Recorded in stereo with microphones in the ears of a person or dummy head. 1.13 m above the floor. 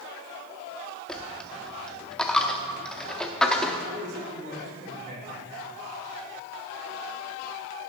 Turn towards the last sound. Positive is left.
turn(degrees=-55)  # may be behind; listen again after turning